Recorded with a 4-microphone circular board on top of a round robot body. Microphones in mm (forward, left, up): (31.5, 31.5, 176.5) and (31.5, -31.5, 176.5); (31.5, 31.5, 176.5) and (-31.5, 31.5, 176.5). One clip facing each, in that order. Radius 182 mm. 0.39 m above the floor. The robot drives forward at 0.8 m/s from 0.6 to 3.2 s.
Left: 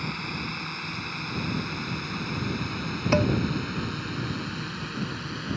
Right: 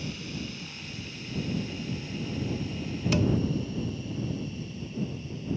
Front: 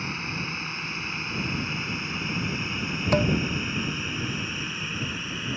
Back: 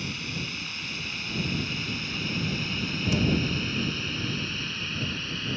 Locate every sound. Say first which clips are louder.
0.0 s a drone: left 4 dB, front 3 dB; 60° left; by 5.6 s 75° left
3.1 s dishes clattering: left 4 dB, front 4 dB; 40° left